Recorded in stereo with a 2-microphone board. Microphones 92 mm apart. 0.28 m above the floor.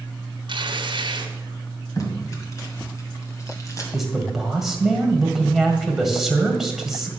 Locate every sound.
0.5 s tearing paper: 65° right (ahead or behind), 1.4 m
2.0 s tape being pulled: 35° left (ahead or behind), 2.0 m
3.9 s a man speaking: centre (ahead or behind), 1.8 m